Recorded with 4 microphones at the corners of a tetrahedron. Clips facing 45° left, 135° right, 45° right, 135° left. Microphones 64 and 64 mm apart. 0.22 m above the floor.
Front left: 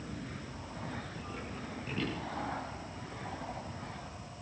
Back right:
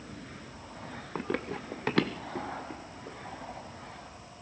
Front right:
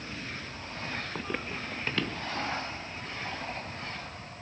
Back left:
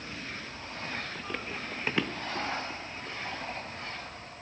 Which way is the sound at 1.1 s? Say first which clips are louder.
Back right 8 dB, front right 2 dB; 110° right.